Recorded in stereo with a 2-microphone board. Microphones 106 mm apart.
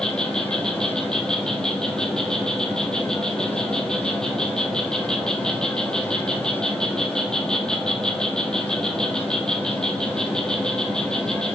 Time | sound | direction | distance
0.0 | an insect | 5° left (ahead or behind) | 2.0 m